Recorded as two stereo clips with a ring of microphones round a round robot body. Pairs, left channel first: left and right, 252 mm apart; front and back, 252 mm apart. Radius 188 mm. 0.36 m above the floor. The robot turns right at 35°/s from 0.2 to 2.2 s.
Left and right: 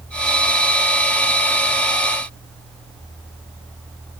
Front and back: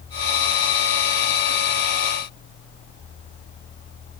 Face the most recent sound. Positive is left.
No sound to turn to.